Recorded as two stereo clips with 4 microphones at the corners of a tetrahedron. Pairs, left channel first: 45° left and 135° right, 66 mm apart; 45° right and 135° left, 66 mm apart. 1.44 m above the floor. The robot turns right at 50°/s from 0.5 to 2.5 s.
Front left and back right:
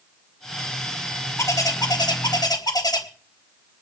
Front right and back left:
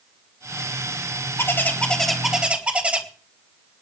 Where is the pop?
No pop in this recording.